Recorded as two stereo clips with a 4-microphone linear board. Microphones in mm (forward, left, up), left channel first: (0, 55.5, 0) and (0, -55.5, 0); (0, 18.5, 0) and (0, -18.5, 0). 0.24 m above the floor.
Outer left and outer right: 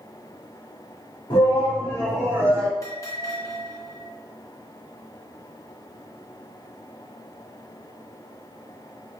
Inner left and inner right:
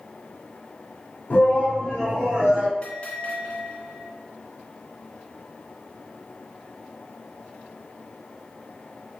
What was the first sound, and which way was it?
A shout, 40° left (ahead or behind).